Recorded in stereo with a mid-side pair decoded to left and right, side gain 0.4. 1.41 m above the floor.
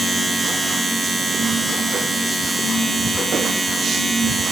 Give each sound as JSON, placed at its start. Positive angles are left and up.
{"t": 0.0, "sound": "a machine running", "azimuth_deg": -25, "distance_m": 6.0}